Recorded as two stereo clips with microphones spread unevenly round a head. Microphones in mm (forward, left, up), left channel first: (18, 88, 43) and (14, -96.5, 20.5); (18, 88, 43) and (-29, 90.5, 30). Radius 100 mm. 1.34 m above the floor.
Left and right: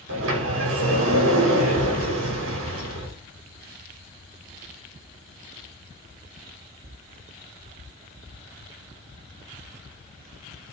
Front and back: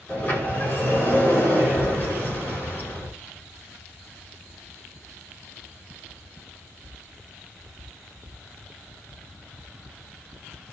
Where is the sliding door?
80° right, 5 m.